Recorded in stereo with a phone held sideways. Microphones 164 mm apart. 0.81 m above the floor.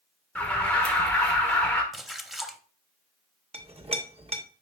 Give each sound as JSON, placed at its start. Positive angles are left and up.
{"t": 0.3, "sound": "an alarm", "side_deg": 10, "distance_m": 1.4}
{"t": 1.9, "sound": "a splash", "side_deg": 0, "distance_m": 0.6}
{"t": 3.5, "sound": "a clink", "side_deg": -35, "distance_m": 0.9}